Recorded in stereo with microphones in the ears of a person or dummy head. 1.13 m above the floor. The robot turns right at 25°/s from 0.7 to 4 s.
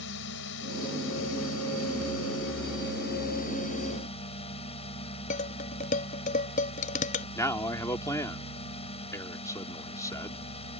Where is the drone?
65° left; by 10.8 s 145° left.